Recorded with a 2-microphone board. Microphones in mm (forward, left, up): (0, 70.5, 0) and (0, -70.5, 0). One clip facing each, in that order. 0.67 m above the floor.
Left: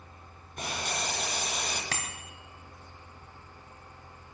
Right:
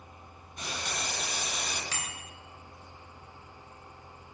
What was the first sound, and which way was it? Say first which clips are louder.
Boiling: left 3 dB; 55° left (ahead or behind).